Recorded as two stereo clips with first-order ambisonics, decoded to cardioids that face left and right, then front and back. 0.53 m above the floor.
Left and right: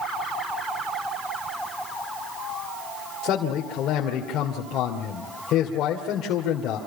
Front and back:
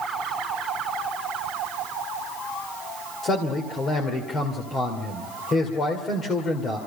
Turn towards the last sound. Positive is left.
turn(degrees=60)